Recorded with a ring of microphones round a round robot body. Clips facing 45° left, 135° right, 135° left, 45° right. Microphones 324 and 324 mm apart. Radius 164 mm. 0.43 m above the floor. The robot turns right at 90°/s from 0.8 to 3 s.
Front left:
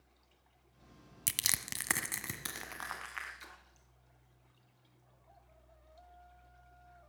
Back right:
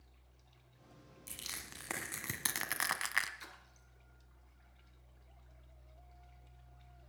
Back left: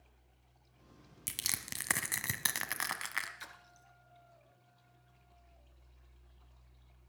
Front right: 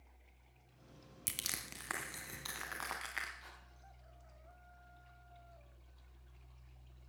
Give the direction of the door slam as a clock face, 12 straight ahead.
No door slam in this recording.